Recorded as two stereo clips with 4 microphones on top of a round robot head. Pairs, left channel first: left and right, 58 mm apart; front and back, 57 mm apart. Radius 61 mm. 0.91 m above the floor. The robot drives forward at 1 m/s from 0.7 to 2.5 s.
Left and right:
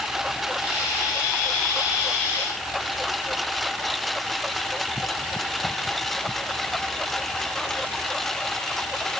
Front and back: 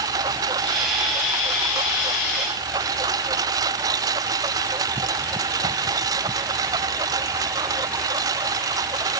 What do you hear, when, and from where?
0.0 s a lawn mower: 175° right; by 9.2 s 175° left